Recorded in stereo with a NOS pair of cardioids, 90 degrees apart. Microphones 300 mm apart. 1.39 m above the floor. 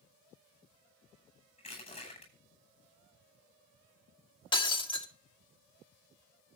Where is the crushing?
20° left, 9.5 m.